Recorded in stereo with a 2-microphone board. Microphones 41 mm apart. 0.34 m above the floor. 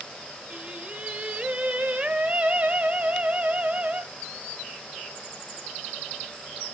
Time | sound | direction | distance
0.5 | singing | 35° right (ahead or behind) | 0.8 m